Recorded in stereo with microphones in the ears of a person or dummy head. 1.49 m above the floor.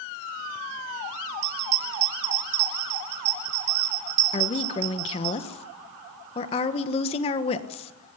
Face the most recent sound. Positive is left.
turn(degrees=35)  # may be behind; listen again after turning